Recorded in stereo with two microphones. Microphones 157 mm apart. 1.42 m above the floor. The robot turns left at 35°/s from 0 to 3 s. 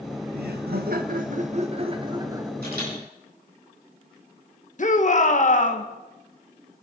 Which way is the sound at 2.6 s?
80° right.